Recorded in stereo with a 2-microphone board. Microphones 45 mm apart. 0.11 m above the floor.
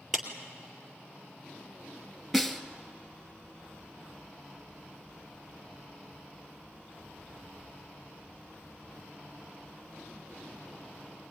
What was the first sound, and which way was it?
A clap, centre (ahead or behind).